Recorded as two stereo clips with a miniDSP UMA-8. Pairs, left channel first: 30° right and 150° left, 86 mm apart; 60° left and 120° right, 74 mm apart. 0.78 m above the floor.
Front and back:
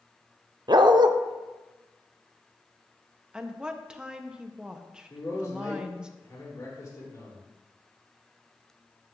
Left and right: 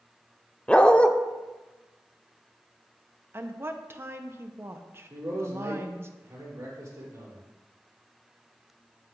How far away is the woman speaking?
About 0.6 m.